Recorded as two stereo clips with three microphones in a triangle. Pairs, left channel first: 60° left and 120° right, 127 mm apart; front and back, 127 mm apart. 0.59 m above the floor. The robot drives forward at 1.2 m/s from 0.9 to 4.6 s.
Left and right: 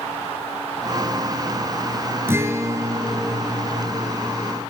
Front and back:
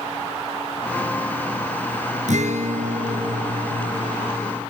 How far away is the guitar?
About 1.6 m.